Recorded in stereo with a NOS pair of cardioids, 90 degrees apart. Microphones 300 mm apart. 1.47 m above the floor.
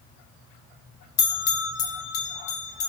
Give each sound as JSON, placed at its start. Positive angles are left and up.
{"t": 1.2, "sound": "a bell", "azimuth_deg": 55, "distance_m": 0.9}